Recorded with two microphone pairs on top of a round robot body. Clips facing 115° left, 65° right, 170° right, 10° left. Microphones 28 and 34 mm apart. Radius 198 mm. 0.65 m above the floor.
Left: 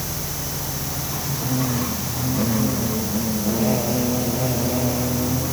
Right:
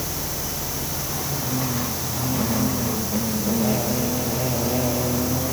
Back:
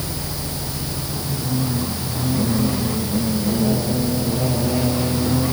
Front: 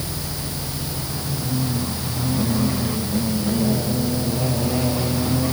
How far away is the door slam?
No door slam in this recording.